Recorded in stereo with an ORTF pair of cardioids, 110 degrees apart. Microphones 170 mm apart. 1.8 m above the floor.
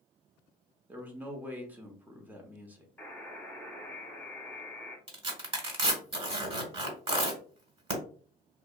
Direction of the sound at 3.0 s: 10° left.